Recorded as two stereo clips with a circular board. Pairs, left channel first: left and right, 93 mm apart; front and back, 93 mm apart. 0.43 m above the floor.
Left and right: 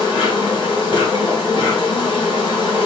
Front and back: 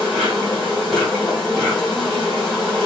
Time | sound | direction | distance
0.0 | an insect | 85° left | 2.0 m